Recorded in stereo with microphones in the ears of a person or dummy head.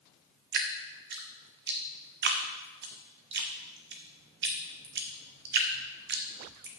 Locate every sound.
0.5 s dripping: 60° right (ahead or behind), 0.8 m